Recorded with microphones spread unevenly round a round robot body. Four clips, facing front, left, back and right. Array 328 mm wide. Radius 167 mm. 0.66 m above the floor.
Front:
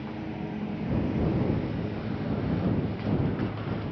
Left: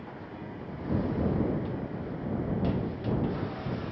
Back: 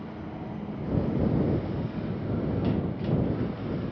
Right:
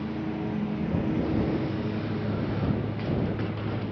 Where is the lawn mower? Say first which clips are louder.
Right 10 dB, front 3 dB; 85° right; by 3.9 s 90° right.